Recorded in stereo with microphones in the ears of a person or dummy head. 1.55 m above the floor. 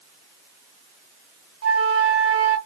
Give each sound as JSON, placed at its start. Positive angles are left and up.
{"t": 1.6, "sound": "a flute", "side_deg": -80, "distance_m": 0.6}